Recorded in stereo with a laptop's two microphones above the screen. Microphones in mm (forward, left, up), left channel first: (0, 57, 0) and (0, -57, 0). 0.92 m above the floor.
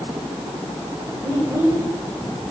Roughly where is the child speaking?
Right.